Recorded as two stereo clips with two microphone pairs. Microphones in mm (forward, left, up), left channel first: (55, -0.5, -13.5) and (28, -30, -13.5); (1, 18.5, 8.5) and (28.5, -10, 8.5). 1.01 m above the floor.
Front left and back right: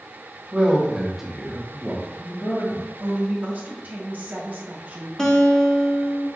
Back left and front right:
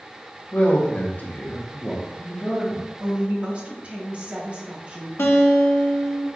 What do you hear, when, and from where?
0.5 s a man speaking: 175° left, 1.3 m; by 2.9 s 60° left, 1.3 m
3.0 s a woman speaking: 100° right, 1.2 m
5.2 s a guitar: 120° left, 0.9 m